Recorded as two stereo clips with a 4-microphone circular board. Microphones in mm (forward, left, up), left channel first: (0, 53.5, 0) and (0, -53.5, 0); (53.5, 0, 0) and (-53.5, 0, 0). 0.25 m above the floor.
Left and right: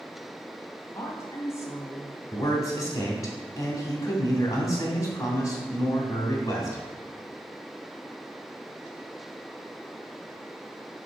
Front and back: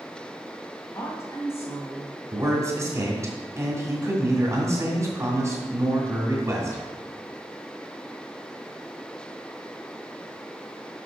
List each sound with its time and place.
0.9 s a woman speaking: 50° left, 1.6 m
2.3 s a man speaking: 130° left, 2.0 m